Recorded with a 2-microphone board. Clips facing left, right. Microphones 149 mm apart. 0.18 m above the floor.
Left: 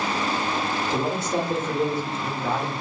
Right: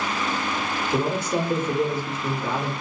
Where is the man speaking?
5° right (ahead or behind), 1.9 m.